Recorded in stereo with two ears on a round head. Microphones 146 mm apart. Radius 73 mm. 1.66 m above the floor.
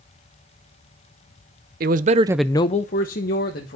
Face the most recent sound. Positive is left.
turn(degrees=60)  # may be behind; listen again after turning